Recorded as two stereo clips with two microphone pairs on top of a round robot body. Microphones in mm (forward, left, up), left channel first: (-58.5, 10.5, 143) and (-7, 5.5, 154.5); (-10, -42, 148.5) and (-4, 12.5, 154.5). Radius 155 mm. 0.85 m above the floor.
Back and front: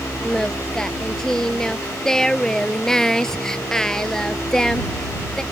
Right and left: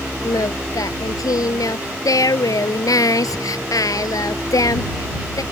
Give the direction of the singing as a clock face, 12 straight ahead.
4 o'clock.